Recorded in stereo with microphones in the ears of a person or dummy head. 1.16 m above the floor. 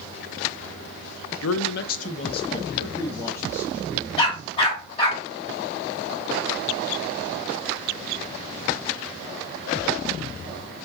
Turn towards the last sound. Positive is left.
turn(degrees=30)  # may be behind; listen again after turning